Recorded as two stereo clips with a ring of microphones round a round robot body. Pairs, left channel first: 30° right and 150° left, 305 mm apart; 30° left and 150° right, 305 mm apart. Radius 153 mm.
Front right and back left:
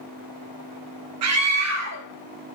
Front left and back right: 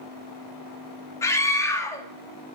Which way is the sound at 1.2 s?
110° left.